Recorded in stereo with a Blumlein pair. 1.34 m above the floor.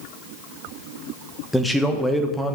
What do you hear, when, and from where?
1.5 s a man speaking: 5° left, 1.1 m